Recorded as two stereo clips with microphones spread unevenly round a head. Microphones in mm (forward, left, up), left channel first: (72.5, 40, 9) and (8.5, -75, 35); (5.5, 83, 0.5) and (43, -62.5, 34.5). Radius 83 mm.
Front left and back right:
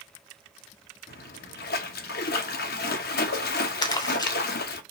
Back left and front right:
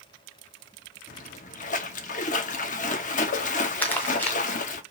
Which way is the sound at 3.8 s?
15° left.